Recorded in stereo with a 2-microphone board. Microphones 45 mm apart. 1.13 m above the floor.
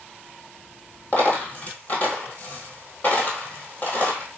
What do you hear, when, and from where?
1.1 s a dropped coin: 35° left (ahead or behind), 1.4 m